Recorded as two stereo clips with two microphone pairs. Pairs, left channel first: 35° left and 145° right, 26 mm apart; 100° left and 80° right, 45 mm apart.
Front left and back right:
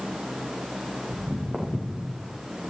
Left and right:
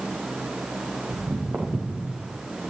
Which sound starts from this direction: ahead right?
Footsteps, at 1.1 s.